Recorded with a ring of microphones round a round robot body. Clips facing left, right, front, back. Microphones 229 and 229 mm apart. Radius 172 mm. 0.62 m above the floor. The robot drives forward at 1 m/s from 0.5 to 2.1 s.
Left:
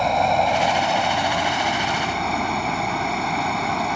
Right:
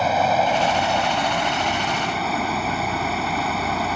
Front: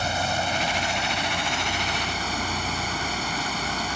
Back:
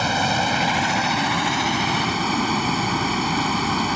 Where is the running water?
Straight behind.